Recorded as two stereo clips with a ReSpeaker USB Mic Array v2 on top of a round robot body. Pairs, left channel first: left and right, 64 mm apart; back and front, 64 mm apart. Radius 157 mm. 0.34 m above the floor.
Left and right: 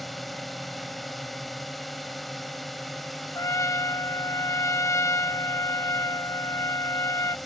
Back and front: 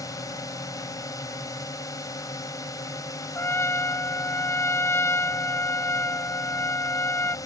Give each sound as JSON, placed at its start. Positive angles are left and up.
{"t": 0.0, "sound": "a drone", "azimuth_deg": 180}
{"t": 3.4, "sound": "a trumpet", "azimuth_deg": 130}